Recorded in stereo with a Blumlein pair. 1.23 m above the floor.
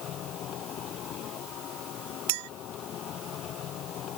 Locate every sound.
0.0 s a machine running: 30° left
2.3 s a clink: 50° right